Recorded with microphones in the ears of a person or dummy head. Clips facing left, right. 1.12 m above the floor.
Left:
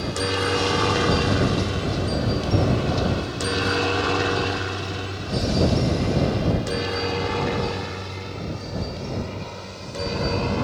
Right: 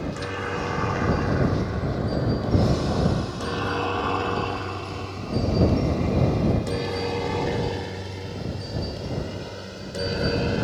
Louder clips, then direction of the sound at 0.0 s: Left 5 dB; 50° left (ahead or behind).